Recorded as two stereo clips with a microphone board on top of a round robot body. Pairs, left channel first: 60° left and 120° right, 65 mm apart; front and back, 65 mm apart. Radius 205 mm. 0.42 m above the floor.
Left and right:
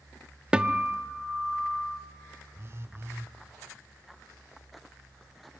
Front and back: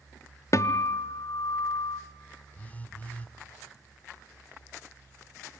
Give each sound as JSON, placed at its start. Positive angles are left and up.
{"t": 0.5, "sound": "a guitar", "azimuth_deg": -45, "distance_m": 0.8}
{"t": 2.5, "sound": "a phone buzzing", "azimuth_deg": -70, "distance_m": 1.5}